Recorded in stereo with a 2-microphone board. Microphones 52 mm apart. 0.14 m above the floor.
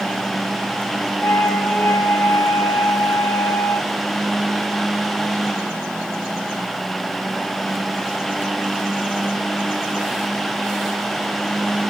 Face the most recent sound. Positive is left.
turn(degrees=65)  # may be behind; listen again after turning